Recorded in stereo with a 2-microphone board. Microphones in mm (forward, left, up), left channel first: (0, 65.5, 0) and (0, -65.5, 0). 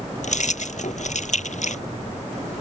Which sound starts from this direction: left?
Keys jangling, at 0.2 s.